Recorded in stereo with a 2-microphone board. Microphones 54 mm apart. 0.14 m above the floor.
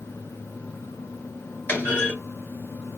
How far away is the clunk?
About 2 m.